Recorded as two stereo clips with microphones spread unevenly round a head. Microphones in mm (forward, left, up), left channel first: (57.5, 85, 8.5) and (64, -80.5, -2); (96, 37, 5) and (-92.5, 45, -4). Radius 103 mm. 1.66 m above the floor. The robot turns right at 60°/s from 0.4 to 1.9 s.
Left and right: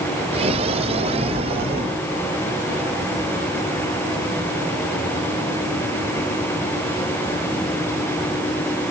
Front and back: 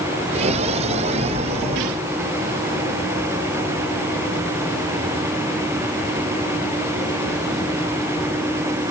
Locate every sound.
Only background noise.